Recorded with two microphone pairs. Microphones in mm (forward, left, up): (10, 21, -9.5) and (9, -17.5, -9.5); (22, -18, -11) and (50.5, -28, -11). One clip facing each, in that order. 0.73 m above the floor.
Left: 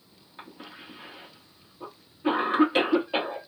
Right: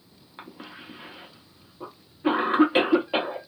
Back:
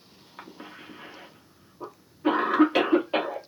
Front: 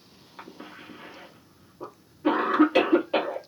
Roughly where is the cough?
Behind right.